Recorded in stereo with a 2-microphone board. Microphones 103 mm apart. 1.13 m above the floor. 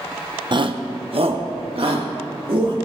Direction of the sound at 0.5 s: 45° right (ahead or behind).